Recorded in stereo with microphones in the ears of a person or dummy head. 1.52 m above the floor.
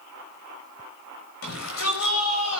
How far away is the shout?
About 7 m.